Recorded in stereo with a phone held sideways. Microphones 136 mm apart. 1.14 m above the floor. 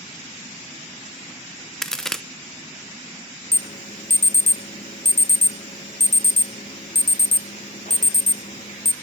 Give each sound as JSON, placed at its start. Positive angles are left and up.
{"t": 1.8, "sound": "a crack", "side_deg": 5, "distance_m": 0.6}
{"t": 3.5, "sound": "an alarm", "side_deg": 65, "distance_m": 0.7}